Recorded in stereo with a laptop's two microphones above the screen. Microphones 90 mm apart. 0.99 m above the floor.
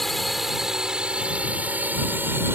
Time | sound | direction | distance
0.0 | a drone | 5° left (ahead or behind) | ?